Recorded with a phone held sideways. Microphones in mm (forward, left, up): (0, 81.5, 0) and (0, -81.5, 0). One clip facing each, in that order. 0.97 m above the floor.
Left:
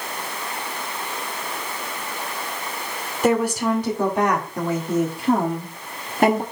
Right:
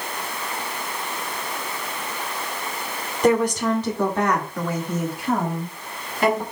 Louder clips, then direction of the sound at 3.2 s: Right 1 dB; 5° left (ahead or behind).